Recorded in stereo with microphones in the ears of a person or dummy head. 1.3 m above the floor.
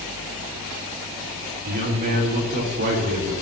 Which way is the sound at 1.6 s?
55° right (ahead or behind).